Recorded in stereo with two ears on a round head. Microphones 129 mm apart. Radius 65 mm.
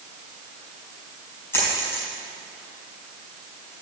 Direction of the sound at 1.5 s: 15° left (ahead or behind).